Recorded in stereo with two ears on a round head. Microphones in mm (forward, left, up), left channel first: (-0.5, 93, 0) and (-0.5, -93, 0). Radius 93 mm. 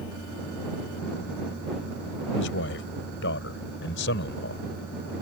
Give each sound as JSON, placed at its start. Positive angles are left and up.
{"t": 2.4, "sound": "a man speaking", "side_deg": 65}